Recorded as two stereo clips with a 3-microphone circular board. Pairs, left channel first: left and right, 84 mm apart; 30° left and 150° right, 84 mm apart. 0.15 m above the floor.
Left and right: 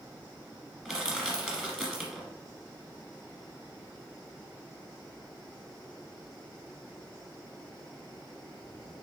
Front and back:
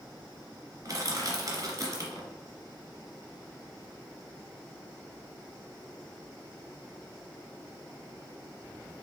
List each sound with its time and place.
0.8 s crushing: 170° right, 1.4 m